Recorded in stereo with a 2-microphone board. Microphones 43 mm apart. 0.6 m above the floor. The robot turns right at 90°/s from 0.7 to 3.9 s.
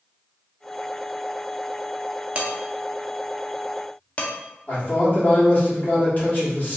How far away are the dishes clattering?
About 0.6 m.